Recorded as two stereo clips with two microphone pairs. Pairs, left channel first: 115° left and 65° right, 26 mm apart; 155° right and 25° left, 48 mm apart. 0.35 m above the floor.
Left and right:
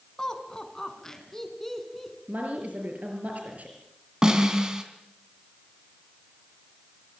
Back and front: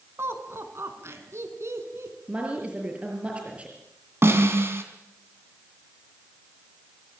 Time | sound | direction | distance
0.2 | laughter | 50° left | 4 m
2.3 | a woman speaking | 45° right | 5.5 m
4.2 | a snare drum | straight ahead | 4 m